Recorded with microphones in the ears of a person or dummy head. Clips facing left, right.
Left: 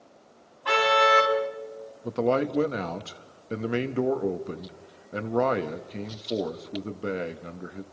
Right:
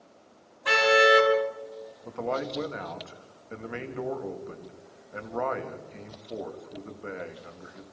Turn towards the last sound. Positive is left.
turn(degrees=50)  # may be behind; listen again after turning